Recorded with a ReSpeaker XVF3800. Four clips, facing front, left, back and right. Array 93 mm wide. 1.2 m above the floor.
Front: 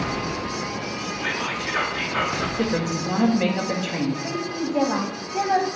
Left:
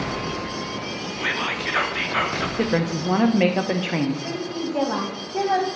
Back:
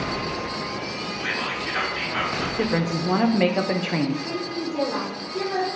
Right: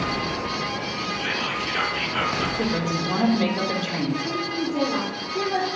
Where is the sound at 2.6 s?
130° left, 0.9 m.